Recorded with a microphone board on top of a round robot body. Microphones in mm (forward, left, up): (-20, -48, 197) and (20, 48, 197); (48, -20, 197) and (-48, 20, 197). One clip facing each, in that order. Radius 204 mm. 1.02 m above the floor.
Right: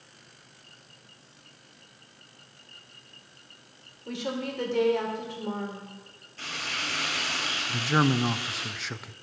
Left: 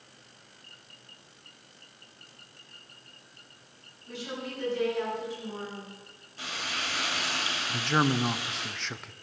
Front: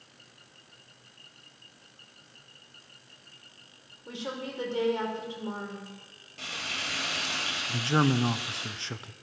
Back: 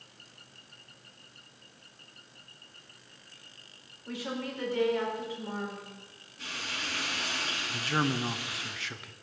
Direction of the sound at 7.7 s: 30° right.